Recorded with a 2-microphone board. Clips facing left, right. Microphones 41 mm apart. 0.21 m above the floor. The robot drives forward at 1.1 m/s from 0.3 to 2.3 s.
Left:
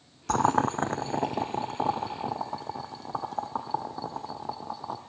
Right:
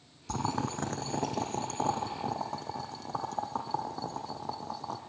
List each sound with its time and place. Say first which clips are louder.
0.3 s boiling: left 9 dB; 70° left (ahead or behind), 0.5 m; by 5.0 s 10° left (ahead or behind), 2.5 m